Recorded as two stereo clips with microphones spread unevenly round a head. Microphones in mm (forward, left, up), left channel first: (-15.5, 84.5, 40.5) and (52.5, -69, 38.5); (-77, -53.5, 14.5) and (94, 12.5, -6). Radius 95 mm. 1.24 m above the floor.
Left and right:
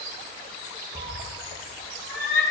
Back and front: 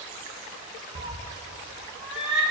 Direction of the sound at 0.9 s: 40° right.